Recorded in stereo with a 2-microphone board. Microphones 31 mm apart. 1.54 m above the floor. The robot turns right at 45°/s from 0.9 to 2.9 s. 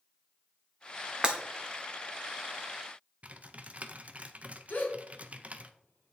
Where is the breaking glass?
35° right (ahead or behind), 1.7 m; by 1.4 s 30° right (ahead or behind), 1.7 m.